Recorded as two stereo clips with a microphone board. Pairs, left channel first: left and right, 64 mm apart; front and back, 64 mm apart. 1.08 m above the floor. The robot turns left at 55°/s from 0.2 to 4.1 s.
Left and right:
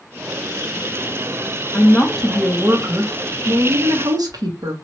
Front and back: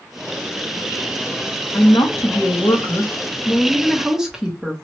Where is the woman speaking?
30° left, 1.0 m; by 4.7 s 100° right, 1.0 m.